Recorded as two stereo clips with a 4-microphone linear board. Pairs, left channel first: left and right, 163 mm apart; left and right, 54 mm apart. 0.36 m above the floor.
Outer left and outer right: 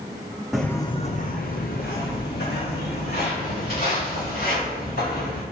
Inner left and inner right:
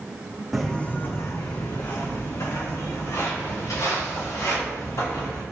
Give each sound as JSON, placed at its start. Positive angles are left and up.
{"t": 0.5, "sound": "footsteps", "side_deg": 0, "distance_m": 1.1}